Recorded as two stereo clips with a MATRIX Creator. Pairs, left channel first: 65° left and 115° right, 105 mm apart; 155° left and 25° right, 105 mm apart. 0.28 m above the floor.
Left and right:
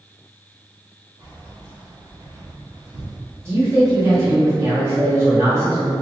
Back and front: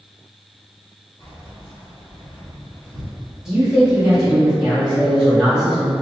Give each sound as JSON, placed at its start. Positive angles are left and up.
{"t": 1.2, "sound": "keys jangling", "azimuth_deg": -155, "distance_m": 1.6}
{"t": 3.5, "sound": "a man speaking", "azimuth_deg": -100, "distance_m": 1.2}